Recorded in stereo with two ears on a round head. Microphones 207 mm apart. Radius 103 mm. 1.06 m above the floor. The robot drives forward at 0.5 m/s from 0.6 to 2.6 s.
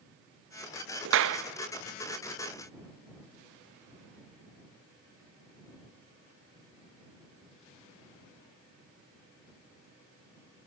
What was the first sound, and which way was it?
A clap, 55° right (ahead or behind).